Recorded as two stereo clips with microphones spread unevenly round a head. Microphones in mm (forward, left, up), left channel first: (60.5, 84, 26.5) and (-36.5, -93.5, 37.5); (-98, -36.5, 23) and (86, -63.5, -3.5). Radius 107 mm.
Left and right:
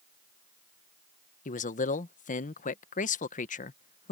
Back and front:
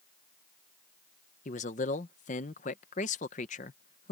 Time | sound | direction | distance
1.4 | a man speaking | 110° left | ?